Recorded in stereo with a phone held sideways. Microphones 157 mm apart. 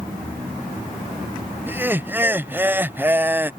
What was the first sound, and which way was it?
Laughter, 10° right (ahead or behind).